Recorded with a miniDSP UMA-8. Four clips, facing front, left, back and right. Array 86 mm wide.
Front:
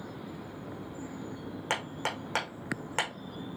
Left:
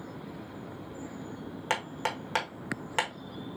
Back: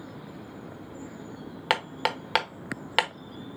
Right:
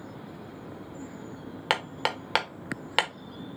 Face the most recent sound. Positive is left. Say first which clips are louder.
# right 3 dB, back 7 dB
turn(degrees=-140)